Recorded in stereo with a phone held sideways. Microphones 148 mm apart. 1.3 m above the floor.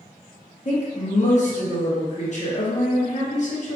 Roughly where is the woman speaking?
Left.